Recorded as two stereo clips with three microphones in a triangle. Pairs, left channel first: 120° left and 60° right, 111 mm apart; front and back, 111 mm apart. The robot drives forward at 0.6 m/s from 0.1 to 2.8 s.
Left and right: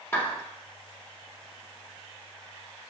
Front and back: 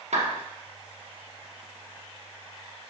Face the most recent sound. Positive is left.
turn(degrees=-175)